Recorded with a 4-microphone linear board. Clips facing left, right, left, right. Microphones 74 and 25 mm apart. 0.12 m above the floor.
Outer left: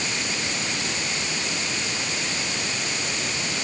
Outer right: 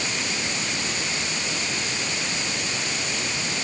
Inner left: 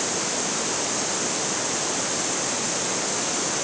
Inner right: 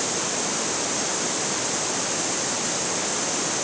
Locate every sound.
Only background noise.